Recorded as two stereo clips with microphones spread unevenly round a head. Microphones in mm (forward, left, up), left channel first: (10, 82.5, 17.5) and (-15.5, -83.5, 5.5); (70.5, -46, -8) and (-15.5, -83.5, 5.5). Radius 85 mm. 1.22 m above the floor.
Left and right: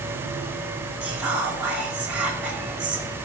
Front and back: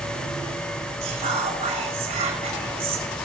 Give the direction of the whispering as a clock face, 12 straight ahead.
6 o'clock.